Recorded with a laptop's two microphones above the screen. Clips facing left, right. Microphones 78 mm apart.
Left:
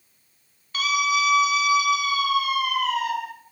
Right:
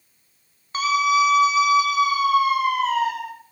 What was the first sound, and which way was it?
A scream, 25° right (ahead or behind).